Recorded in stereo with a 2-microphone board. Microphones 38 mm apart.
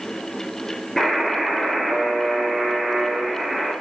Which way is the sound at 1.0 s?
15° left (ahead or behind).